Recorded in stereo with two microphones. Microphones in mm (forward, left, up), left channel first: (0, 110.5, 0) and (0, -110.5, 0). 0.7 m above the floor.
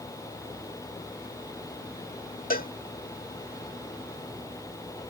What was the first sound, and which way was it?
A cowbell, 40° left (ahead or behind).